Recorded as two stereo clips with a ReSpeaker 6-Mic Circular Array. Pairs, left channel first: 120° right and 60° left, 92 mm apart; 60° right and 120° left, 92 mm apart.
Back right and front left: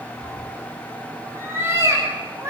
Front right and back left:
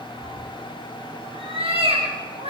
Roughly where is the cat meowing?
Behind left.